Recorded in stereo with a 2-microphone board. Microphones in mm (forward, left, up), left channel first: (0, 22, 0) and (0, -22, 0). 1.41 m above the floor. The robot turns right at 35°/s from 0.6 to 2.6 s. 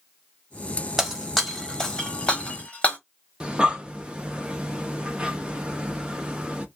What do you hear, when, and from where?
1.0 s breaking glass: 5° right (ahead or behind), 0.7 m; by 3.0 s 25° left (ahead or behind), 0.7 m
3.4 s breathing: 20° right (ahead or behind), 0.5 m